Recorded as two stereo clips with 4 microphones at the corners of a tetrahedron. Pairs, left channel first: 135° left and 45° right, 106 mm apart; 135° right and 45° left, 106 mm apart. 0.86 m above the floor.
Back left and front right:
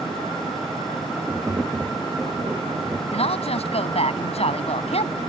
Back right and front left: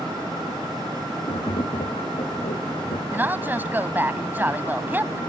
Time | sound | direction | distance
1.3 | tapping | 115° right | ?
3.1 | a woman speaking | 115° left | ?